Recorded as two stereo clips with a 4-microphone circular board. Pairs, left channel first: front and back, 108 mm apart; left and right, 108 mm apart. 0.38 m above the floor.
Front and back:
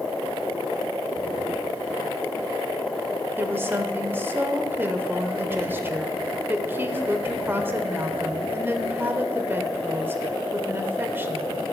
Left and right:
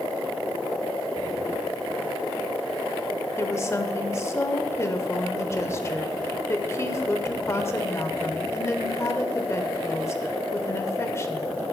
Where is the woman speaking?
130° left, 1.0 m.